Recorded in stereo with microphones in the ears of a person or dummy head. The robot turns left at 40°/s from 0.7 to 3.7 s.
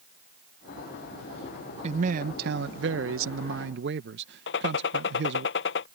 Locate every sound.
1.8 s a man speaking: 40° right; by 5.5 s 115° right
4.5 s a gunshot: 60° left (ahead or behind)